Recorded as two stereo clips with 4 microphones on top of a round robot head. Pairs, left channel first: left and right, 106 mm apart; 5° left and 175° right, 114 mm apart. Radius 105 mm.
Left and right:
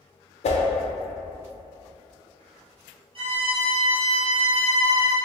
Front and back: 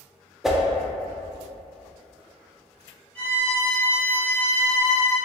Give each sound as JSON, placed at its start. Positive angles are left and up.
{"t": 0.4, "sound": "a whoosh", "azimuth_deg": 100, "distance_m": 0.5}
{"t": 3.1, "sound": "a violin", "azimuth_deg": -70, "distance_m": 0.9}